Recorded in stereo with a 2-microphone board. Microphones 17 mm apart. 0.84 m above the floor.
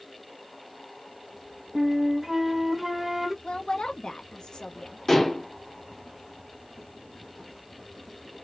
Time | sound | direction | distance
1.8 | a flute | 10° right (ahead or behind) | 0.9 m
3.4 | a woman speaking | 55° left (ahead or behind) | 0.7 m
5.1 | dishes clattering | 20° left (ahead or behind) | 1.1 m